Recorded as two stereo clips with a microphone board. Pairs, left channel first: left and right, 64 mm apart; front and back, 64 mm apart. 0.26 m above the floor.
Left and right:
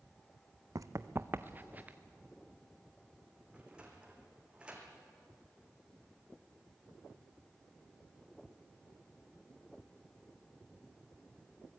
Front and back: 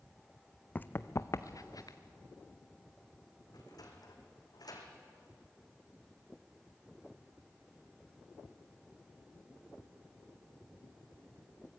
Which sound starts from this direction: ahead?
A sliding door, at 3.5 s.